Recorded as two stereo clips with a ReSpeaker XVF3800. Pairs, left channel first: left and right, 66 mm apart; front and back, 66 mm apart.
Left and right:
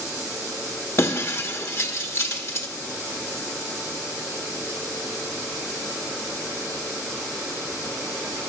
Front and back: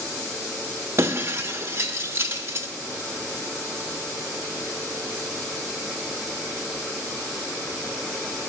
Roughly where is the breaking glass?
Behind left.